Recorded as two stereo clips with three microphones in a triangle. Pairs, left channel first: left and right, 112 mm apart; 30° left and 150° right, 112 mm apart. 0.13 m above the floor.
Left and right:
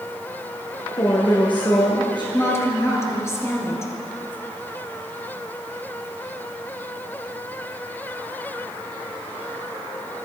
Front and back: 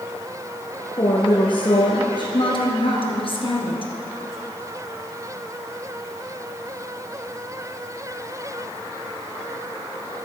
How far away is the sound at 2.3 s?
About 2 m.